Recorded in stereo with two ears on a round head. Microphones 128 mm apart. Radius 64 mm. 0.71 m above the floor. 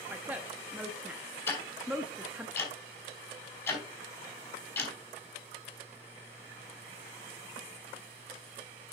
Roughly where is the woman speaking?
Centre.